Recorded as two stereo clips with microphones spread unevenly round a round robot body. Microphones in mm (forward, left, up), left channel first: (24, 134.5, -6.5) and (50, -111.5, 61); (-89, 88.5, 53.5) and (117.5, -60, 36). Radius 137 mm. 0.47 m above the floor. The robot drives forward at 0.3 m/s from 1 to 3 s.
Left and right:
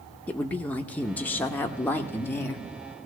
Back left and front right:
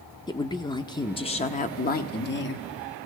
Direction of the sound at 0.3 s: 90° left.